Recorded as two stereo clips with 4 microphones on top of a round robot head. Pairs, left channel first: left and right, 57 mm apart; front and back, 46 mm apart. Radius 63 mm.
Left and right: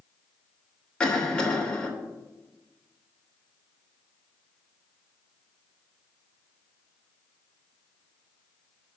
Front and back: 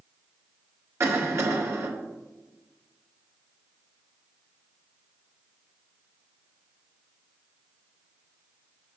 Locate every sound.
1.0 s a cough: 165° left, 3 m